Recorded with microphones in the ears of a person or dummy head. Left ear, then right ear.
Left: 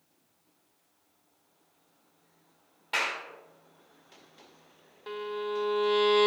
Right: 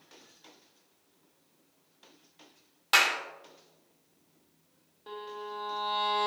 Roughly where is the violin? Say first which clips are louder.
Left 6 dB; left.